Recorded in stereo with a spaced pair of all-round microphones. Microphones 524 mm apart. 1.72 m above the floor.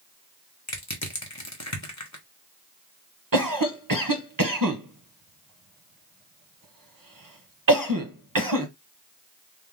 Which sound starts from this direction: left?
Crushing, at 0.7 s.